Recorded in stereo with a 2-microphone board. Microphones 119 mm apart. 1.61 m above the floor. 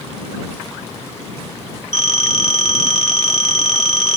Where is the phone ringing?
65° left (ahead or behind).